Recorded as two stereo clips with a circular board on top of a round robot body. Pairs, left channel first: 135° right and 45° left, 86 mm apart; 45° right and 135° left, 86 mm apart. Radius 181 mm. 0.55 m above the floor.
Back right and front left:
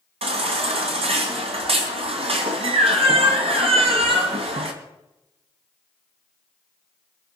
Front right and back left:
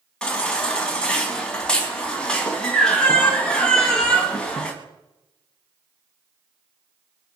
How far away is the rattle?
I don't hear a rattle.